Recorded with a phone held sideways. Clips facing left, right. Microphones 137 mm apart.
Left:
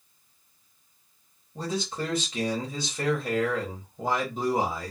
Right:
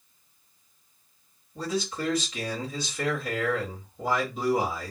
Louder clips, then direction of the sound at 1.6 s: Right 1 dB; 30° left (ahead or behind).